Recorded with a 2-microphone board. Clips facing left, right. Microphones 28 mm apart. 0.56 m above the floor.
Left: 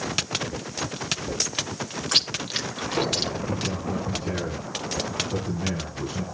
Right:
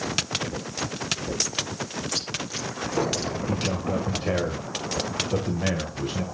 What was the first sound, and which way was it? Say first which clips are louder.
Chewing: left 6 dB; 65° left (ahead or behind).